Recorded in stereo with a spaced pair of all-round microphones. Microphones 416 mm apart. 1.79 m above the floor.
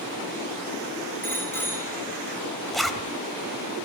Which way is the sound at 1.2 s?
5° left (ahead or behind).